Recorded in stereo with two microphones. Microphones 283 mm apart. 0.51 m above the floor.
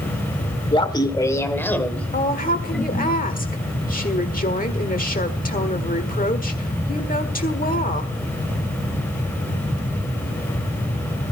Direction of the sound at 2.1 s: 30° left (ahead or behind).